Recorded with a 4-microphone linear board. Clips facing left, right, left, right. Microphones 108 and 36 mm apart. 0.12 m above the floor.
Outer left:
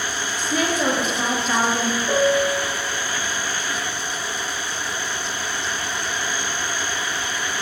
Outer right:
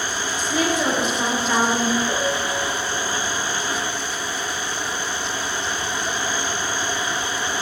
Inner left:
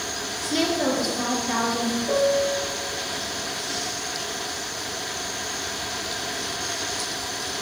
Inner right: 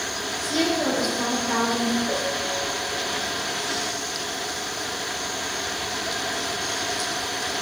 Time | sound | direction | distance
0.4 | a woman speaking | centre (ahead or behind) | 1.8 m
2.1 | a piano | 30° left (ahead or behind) | 0.8 m